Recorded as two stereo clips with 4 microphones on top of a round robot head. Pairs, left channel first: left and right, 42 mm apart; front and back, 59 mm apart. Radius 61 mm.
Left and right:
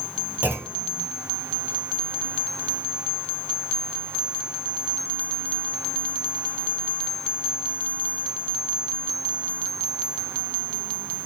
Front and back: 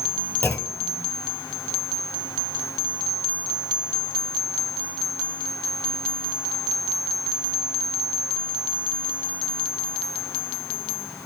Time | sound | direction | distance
0.4 | a clunk | 50° right | 1.6 m